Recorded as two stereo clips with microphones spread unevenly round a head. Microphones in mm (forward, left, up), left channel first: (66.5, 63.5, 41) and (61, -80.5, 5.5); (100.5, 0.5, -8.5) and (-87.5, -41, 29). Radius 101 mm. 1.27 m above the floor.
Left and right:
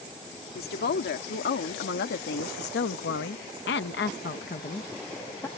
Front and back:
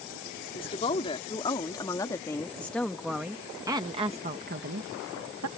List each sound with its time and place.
0.6 s a woman speaking: 80° left; by 5.5 s 170° left